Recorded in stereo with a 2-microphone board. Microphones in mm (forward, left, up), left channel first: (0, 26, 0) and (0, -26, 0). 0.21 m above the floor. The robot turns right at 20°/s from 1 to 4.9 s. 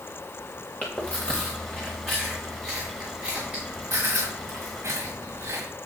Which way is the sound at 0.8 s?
25° left (ahead or behind).